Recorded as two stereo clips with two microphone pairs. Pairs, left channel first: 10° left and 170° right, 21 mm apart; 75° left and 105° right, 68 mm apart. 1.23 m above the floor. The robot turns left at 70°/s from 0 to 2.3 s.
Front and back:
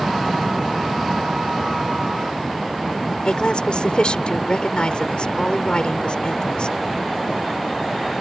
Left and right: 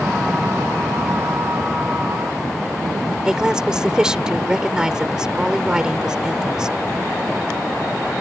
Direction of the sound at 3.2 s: 25° right.